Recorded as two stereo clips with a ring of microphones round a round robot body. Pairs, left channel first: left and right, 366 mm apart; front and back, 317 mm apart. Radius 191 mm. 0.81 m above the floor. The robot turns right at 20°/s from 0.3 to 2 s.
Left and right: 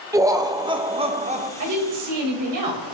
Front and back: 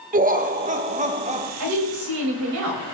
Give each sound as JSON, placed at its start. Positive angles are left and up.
{"t": 0.1, "sound": "laughter", "azimuth_deg": -160, "distance_m": 1.0}
{"t": 1.6, "sound": "a woman speaking", "azimuth_deg": -135, "distance_m": 3.5}